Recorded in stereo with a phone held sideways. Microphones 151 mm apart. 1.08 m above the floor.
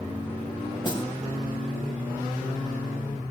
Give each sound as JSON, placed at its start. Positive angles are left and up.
{"t": 0.8, "sound": "a snare drum", "side_deg": 30, "distance_m": 2.5}